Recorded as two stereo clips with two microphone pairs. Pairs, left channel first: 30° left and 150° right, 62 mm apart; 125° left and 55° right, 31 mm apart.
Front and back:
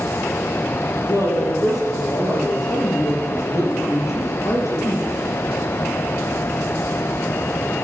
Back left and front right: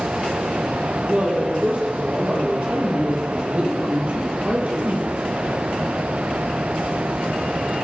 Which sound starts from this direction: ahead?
A woman speaking, at 1.0 s.